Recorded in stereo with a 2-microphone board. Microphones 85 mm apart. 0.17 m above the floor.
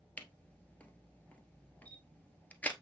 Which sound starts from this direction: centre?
A camera shutter, at 0.2 s.